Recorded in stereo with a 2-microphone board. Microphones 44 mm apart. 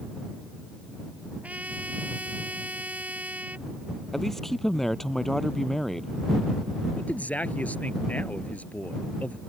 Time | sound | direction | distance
1.4 | a trumpet | 35° right (ahead or behind) | ?
4.1 | a man speaking | 5° left (ahead or behind) | ?
6.9 | a man speaking | 35° left (ahead or behind) | ?